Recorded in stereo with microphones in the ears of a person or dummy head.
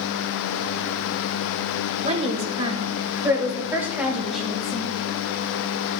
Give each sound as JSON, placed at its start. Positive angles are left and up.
{"t": 2.0, "sound": "a woman speaking", "side_deg": -45, "distance_m": 2.0}